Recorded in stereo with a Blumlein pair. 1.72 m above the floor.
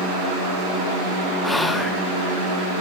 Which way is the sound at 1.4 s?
5° left.